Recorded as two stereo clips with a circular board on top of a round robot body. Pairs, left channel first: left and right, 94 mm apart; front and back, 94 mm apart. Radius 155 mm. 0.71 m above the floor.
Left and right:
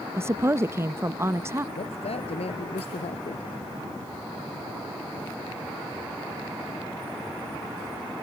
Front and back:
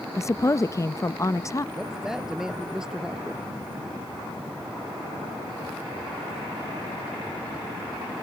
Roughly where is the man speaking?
Left.